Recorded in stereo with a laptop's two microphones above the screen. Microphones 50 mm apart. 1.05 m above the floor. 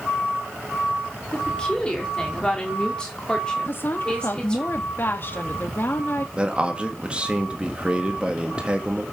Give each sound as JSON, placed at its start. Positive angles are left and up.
{"t": 1.3, "sound": "a woman speaking", "side_deg": 15, "distance_m": 2.5}
{"t": 3.6, "sound": "a woman speaking", "side_deg": 45, "distance_m": 1.4}
{"t": 6.4, "sound": "a man speaking", "side_deg": -25, "distance_m": 1.6}